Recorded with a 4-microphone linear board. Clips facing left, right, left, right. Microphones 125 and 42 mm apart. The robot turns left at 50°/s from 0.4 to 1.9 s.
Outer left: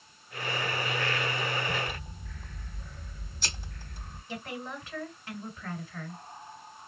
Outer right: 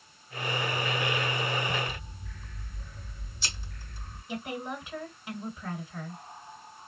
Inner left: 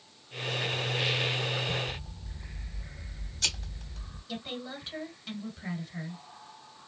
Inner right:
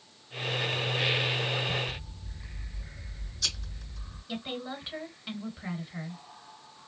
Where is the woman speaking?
15° right (ahead or behind), 1.9 m.